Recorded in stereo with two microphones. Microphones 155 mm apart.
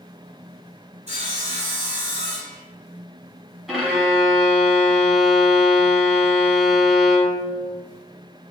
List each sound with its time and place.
1.1 s sawing: 45° right (ahead or behind), 1.2 m
3.7 s a violin: centre (ahead or behind), 1.3 m